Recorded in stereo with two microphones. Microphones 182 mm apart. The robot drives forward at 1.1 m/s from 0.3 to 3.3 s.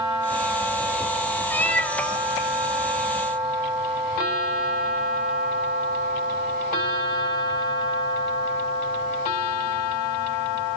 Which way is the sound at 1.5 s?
10° left (ahead or behind).